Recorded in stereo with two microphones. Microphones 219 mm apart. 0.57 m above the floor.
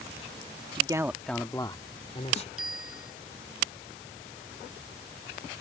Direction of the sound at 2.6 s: 85° right.